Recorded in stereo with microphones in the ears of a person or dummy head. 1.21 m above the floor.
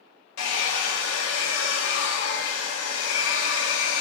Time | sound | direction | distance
0.4 | a hair dryer | 80° left | 0.6 m